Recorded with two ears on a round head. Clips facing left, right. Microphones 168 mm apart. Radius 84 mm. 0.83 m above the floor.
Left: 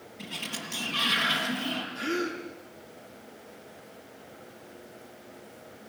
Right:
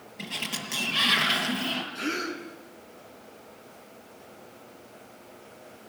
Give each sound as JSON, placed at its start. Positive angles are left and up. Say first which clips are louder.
{"t": 0.2, "sound": "a sliding door", "louder": "right 2 dB", "side_deg": -70, "distance_m": 6.5}
{"t": 1.9, "sound": "a gasp", "louder": "left 4 dB", "side_deg": -50, "distance_m": 6.0}